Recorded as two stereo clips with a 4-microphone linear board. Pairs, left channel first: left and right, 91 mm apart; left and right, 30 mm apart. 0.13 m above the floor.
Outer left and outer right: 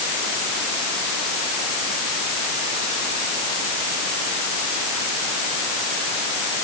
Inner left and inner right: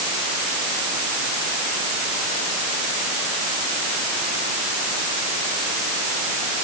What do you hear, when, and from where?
Only background noise.